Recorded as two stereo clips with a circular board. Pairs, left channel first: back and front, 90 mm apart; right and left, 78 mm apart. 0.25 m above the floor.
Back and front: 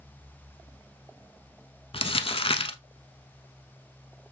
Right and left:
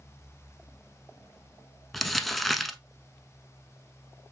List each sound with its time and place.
1.9 s crumpling: 175° right, 0.6 m